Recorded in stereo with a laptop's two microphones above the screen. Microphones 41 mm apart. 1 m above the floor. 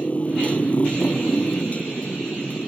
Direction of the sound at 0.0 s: 30° left (ahead or behind).